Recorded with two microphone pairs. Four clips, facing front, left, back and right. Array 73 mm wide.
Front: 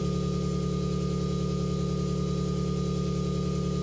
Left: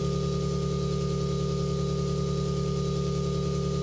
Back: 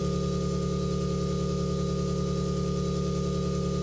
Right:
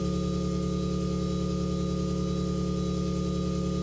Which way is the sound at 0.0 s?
135° left.